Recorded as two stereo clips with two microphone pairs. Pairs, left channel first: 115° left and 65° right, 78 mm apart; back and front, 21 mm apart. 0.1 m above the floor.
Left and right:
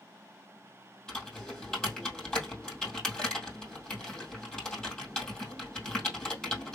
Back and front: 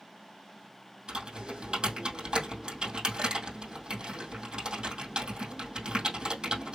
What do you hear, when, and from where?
1.1 s typing on a keyboard: 35° left, 2.5 m